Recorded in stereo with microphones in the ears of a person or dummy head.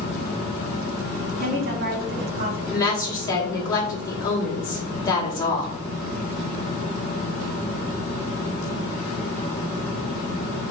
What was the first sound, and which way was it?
A woman speaking, 65° right (ahead or behind).